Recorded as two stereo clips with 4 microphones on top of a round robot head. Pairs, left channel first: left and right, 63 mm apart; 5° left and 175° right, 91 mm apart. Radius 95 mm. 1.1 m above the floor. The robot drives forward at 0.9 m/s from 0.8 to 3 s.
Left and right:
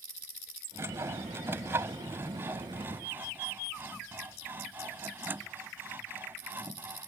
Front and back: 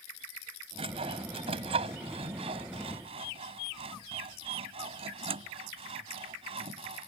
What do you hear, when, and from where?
0.8 s sawing: 150° right; by 7.1 s 155° right